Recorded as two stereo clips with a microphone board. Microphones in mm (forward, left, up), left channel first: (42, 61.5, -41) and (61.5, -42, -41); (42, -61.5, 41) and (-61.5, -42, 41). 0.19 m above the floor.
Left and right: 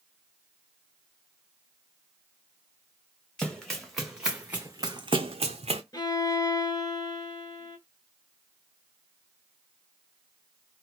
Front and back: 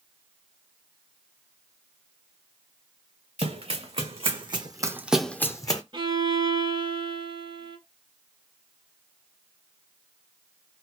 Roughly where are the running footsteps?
Behind.